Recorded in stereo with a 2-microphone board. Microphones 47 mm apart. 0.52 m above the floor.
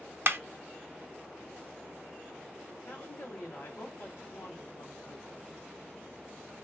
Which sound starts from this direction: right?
A clap, at 0.3 s.